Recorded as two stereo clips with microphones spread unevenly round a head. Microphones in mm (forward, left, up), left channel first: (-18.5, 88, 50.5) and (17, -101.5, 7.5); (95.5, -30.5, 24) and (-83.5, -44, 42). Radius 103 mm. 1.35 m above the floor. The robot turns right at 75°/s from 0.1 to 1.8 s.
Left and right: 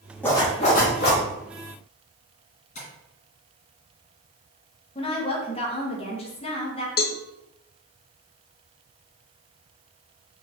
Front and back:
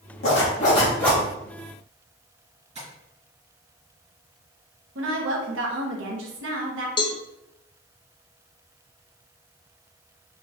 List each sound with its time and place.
0.2 s a zipper: 30° left, 1.2 m; by 1.2 s 105° left, 1.2 m
2.8 s tapping: 135° left, 2 m
5.0 s a woman speaking: 160° left, 1.0 m
7.0 s a cowbell: 60° left, 0.5 m